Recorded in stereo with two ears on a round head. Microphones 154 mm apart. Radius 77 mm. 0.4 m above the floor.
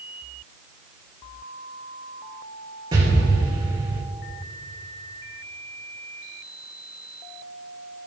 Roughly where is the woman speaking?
No woman speaking in this recording.